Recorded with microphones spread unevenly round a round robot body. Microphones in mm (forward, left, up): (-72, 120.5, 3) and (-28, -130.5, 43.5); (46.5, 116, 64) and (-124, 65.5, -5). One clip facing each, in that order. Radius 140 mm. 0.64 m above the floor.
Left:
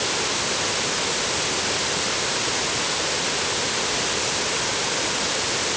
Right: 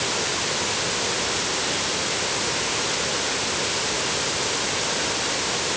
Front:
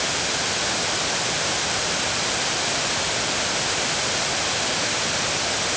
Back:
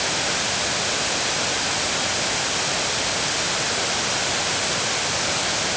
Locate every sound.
Only background noise.